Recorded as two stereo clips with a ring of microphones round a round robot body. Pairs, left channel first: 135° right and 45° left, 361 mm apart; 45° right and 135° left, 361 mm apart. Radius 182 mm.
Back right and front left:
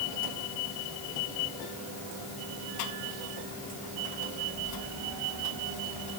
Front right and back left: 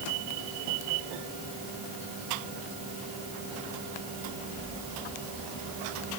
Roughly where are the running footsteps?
No running footsteps in this recording.